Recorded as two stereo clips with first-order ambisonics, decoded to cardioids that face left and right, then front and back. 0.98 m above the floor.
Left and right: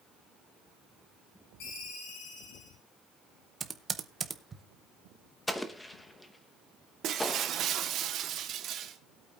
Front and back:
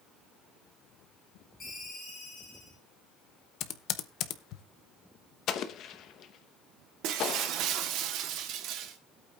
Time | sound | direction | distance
1.6 | a ringtone | 70° left | 5.5 m
3.6 | typing on a keyboard | 20° right | 0.7 m
5.5 | an explosion | 10° left | 0.8 m
7.0 | breaking glass | 140° right | 1.2 m